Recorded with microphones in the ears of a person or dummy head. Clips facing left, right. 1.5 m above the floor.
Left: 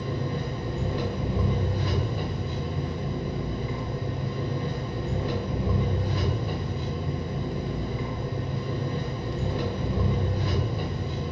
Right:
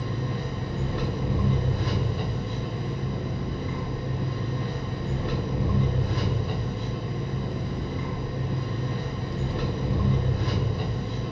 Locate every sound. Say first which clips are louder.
0.0 s an engine running: left 1 dB; 10° left (ahead or behind), 1.2 m